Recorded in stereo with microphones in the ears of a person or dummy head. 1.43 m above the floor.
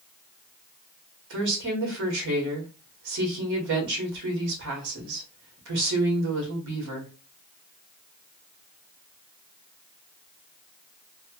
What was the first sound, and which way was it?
A woman speaking, 55° right (ahead or behind).